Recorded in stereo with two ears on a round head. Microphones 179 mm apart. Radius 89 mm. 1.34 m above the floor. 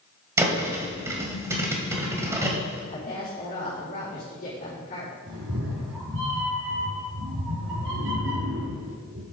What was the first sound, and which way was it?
A thud, 15° right (ahead or behind).